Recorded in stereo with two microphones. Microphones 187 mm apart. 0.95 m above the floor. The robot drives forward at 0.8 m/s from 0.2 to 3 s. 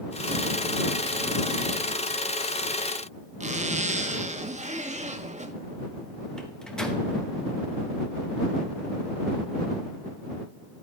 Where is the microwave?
5° left (ahead or behind), 1.0 m.